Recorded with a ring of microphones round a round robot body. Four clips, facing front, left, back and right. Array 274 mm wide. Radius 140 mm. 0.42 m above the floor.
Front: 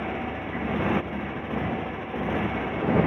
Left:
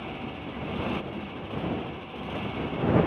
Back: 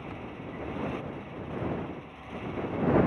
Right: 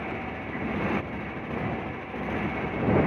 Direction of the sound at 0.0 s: 15° right.